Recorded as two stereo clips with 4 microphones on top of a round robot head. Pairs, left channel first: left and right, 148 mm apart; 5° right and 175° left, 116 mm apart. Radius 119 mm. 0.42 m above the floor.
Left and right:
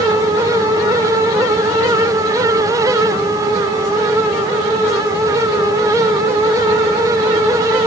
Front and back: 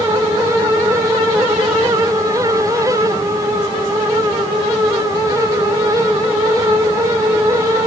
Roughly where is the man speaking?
I don't hear a man speaking.